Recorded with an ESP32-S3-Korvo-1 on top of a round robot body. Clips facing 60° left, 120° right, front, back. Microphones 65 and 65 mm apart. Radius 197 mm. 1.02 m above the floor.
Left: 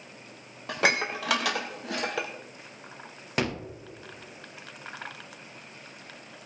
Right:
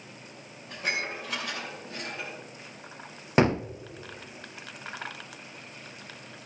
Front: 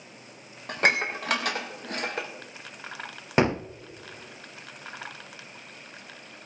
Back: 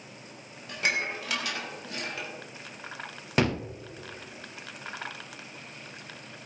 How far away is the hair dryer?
No hair dryer in this recording.